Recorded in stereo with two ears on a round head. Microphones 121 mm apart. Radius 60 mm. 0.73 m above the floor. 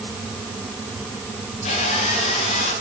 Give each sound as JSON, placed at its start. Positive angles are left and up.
{"t": 1.6, "sound": "sawing", "side_deg": 50, "distance_m": 8.5}